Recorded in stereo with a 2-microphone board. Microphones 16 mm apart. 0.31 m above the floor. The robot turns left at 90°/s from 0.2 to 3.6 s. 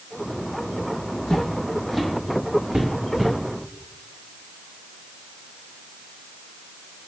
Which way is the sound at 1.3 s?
60° left (ahead or behind).